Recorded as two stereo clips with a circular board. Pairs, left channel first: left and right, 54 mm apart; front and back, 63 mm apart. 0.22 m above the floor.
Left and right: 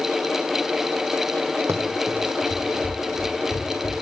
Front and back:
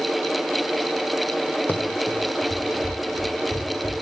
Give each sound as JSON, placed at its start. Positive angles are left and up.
{"t": 1.7, "sound": "running footsteps", "azimuth_deg": -60, "distance_m": 0.7}